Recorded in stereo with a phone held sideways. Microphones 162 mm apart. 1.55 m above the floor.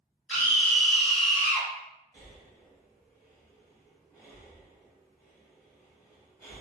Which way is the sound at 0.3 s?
10° left (ahead or behind).